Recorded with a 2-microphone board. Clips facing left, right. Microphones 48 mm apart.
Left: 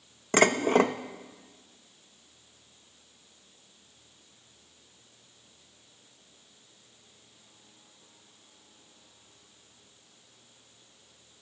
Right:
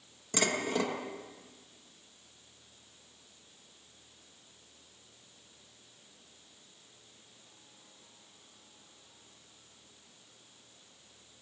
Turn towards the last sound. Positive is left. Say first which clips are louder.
# left 9 dB
turn(degrees=45)  # may be behind; listen again after turning